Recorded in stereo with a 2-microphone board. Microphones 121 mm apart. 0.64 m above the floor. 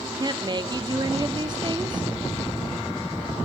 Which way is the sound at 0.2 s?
40° right (ahead or behind).